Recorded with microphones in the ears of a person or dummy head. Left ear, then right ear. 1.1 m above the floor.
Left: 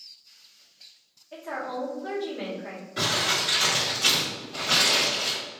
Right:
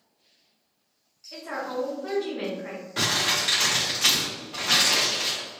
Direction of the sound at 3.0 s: 15° right (ahead or behind).